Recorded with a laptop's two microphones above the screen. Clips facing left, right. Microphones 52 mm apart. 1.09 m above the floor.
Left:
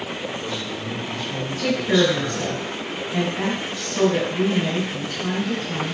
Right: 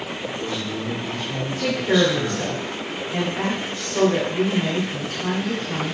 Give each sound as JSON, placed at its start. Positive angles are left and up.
{"t": 0.2, "sound": "a man speaking", "side_deg": -50, "distance_m": 3.5}
{"t": 1.6, "sound": "a woman speaking", "side_deg": -50, "distance_m": 2.0}